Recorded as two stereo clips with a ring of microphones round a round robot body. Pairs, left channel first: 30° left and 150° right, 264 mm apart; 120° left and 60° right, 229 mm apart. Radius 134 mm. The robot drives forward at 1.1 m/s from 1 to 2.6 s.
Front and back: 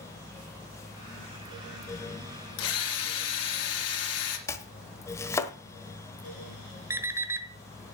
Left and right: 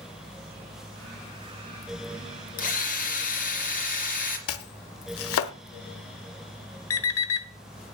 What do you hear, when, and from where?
2.6 s a drill: 65° left, 3 m
4.5 s chopping: 110° left, 1.1 m
6.9 s an alarm clock: 130° left, 1.2 m